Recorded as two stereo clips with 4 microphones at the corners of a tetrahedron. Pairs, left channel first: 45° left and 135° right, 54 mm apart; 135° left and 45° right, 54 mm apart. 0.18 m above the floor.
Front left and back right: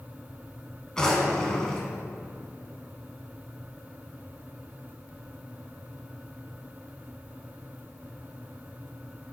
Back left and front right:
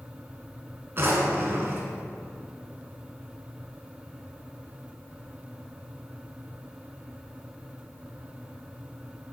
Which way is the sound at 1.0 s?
30° right.